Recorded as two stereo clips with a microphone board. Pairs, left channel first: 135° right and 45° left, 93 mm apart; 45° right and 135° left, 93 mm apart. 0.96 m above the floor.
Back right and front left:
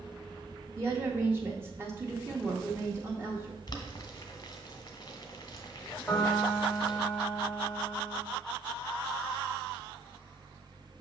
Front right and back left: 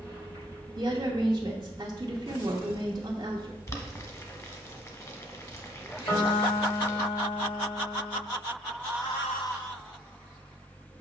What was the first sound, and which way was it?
A woman speaking, 105° left.